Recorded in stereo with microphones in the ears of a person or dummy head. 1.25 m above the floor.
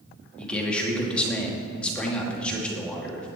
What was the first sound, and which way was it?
A man speaking, 5° left (ahead or behind).